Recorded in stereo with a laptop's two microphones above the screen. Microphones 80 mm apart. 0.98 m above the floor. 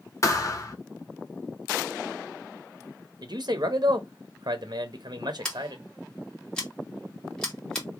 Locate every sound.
0.2 s a thud: 45° left (ahead or behind), 1.0 m
3.2 s a man speaking: 60° right (ahead or behind), 0.9 m
5.5 s scissors: 10° left (ahead or behind), 1.8 m